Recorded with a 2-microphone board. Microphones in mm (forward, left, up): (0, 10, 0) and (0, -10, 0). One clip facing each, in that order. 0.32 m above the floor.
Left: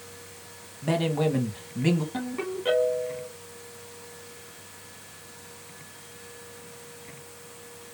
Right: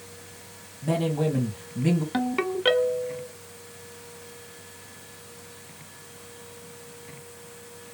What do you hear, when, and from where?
0.8 s a man speaking: 35° left (ahead or behind), 1.9 m
2.1 s a ringtone: 50° right (ahead or behind), 1.3 m